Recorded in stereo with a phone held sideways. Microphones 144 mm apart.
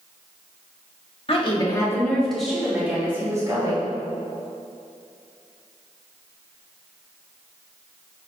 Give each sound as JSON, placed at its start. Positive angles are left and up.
{"t": 1.3, "sound": "a woman speaking", "side_deg": 45, "distance_m": 1.7}